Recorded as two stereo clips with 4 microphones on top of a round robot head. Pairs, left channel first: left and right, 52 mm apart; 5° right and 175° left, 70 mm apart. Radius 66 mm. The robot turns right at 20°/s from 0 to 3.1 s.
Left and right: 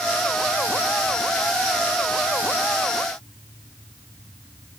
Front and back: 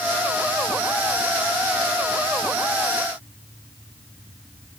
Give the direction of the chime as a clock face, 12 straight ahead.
No chime in this recording.